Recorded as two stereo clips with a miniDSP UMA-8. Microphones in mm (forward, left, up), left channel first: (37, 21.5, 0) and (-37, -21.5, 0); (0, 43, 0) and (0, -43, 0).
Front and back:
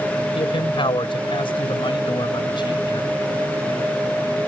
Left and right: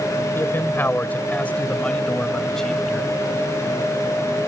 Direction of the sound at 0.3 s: 30° left.